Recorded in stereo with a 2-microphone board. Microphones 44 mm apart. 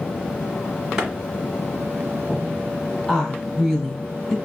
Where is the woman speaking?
10° left (ahead or behind), 1.1 m.